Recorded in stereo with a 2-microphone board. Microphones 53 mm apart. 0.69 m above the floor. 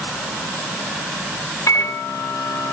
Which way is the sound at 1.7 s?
70° left (ahead or behind).